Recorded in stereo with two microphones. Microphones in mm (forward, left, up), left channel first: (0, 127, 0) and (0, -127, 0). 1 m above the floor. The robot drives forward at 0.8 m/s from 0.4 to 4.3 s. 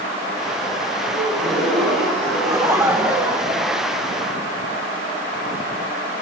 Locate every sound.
1.1 s a gasp: centre (ahead or behind), 7 m; by 3.4 s 5° left (ahead or behind), 5.5 m
2.4 s laughter: 10° right (ahead or behind), 0.5 m; by 4.5 s 5° right (ahead or behind), 1.8 m